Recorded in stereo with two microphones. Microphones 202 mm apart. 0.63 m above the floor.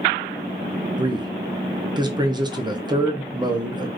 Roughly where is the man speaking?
Right.